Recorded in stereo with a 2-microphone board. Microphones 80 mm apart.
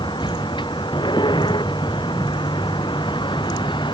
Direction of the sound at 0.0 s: 85° left.